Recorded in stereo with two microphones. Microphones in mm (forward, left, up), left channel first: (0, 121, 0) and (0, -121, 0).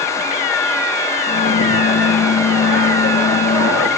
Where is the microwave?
80° left, 7.5 m.